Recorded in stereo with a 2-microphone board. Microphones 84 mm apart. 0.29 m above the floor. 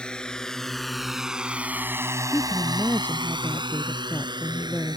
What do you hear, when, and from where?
0.0 s a drone: 10° left (ahead or behind); by 5.0 s 50° right (ahead or behind)
2.3 s a woman speaking: 20° left (ahead or behind)